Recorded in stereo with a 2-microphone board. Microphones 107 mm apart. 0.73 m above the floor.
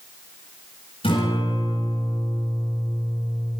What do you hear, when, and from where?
1.0 s a guitar: 60° left (ahead or behind), 9.5 m